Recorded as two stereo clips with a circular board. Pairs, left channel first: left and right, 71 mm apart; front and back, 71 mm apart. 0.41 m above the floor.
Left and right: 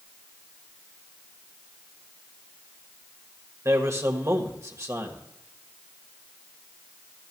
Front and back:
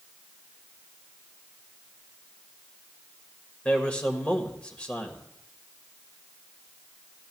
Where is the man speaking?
70° right, 1.4 m.